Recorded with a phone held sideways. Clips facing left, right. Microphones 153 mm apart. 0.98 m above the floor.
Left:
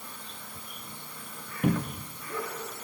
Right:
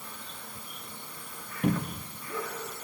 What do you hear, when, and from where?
1.6 s a cupboard door: 5° left (ahead or behind), 0.6 m